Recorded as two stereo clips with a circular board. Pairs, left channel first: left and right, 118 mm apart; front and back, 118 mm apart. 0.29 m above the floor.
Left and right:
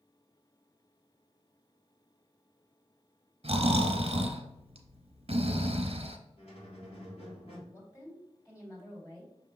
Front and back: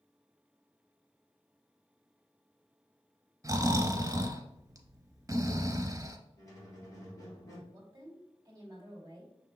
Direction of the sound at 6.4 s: 60° left.